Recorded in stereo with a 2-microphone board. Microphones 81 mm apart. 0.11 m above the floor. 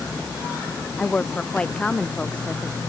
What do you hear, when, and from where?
1.0 s a woman speaking: 15° left (ahead or behind)